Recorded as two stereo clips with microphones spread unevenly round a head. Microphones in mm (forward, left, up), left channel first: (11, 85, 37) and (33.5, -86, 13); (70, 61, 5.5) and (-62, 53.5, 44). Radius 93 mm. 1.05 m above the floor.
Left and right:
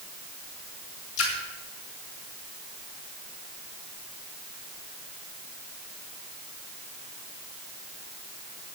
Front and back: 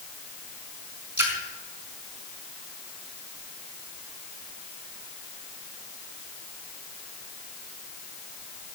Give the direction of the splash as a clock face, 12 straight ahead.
8 o'clock.